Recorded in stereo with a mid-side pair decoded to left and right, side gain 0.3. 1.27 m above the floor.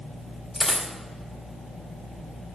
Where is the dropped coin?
25° left, 2 m.